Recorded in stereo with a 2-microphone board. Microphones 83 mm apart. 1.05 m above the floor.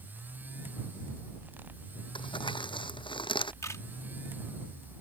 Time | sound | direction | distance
2.1 | crumpling | 85° left | ?
3.6 | a camera shutter | 40° left (ahead or behind) | ?